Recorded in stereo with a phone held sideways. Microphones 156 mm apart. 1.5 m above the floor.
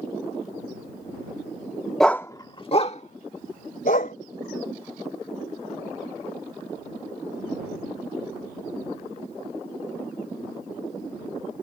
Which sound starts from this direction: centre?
A dog barking, at 2.0 s.